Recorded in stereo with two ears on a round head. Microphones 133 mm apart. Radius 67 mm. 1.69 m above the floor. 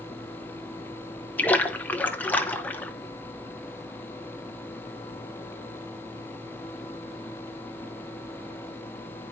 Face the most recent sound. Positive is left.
turn(degrees=10)  # may be behind; listen again after turning